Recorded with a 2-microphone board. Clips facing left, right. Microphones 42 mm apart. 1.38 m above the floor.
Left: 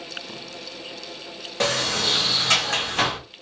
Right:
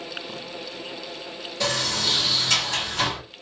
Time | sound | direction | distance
1.6 | a sliding door | 70° left (ahead or behind) | 1.3 m